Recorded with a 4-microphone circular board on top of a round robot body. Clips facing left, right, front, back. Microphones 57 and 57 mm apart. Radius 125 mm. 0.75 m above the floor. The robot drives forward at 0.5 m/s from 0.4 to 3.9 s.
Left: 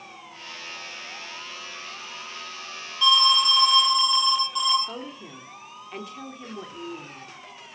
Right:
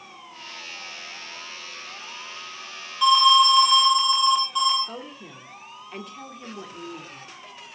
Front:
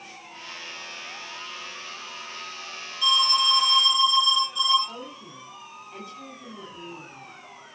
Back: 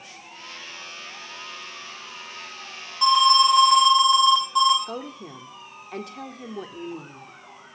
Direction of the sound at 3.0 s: 170° right.